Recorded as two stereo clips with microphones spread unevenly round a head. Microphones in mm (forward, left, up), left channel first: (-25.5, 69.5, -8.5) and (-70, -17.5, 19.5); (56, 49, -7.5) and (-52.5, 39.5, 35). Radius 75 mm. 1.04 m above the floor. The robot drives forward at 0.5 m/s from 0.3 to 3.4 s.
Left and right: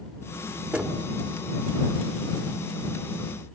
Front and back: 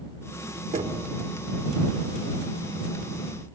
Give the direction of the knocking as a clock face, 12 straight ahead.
6 o'clock.